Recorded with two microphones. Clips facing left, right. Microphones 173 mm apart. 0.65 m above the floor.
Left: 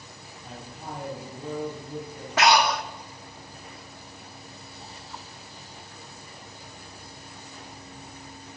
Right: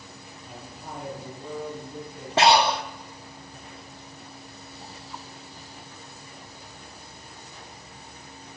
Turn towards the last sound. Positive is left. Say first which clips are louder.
# right 2 dB
turn(degrees=-30)  # may be behind; listen again after turning